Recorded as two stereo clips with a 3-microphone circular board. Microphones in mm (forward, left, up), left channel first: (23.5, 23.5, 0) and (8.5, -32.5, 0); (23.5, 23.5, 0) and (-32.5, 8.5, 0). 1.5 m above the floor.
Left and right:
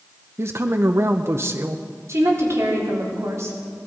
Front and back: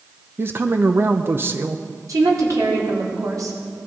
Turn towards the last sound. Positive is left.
turn(degrees=-145)